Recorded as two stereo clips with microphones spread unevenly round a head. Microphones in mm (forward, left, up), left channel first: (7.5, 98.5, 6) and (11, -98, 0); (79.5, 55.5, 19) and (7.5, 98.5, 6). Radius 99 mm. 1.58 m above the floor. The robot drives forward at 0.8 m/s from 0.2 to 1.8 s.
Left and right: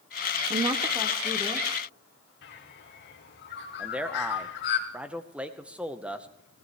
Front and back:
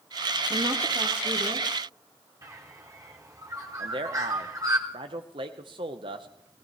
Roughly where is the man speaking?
Behind.